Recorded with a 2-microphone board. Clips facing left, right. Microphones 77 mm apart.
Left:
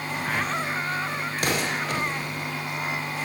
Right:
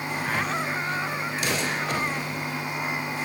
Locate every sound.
1.4 s an explosion: 50° left (ahead or behind), 0.7 m